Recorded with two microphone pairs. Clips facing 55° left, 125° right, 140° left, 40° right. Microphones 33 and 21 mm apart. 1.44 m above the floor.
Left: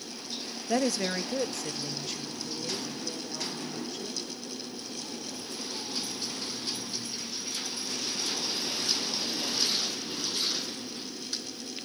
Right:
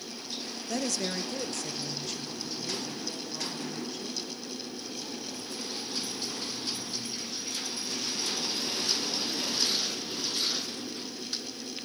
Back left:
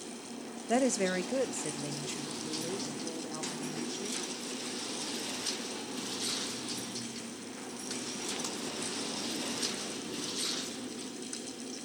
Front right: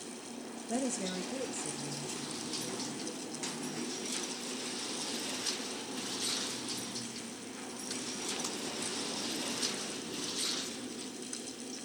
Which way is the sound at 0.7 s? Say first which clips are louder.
Left 4 dB, back left 7 dB; 120° left.